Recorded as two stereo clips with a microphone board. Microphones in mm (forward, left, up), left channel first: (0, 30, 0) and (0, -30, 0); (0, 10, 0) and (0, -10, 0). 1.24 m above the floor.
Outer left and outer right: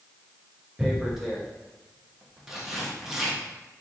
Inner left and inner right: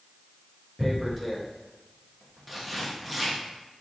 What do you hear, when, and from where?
0.8 s tearing paper: 5° right (ahead or behind), 0.5 m